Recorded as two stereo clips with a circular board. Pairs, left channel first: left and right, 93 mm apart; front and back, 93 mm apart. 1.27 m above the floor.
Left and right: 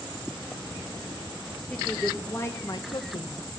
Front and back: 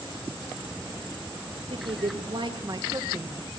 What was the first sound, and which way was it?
A woman speaking, 170° left.